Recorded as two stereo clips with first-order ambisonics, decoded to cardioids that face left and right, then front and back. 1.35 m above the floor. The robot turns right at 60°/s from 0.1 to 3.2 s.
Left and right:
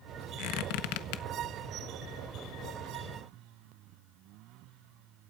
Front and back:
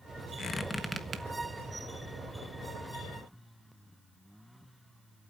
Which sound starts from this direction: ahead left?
A squeak, at 0.4 s.